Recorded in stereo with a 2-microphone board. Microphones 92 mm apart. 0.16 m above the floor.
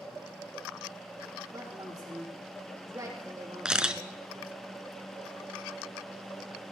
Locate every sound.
1.5 s a woman speaking: 35° right (ahead or behind), 4.5 m
3.6 s a camera shutter: 10° right (ahead or behind), 0.6 m